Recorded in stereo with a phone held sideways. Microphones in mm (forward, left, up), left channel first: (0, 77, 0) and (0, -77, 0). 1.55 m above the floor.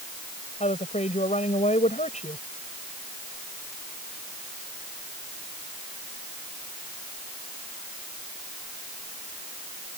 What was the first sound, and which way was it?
A woman speaking, 50° left (ahead or behind).